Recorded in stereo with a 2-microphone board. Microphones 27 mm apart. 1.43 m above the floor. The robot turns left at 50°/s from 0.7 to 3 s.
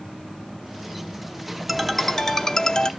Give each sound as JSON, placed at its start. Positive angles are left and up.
{"t": 1.7, "sound": "a ringtone", "azimuth_deg": -175, "distance_m": 0.7}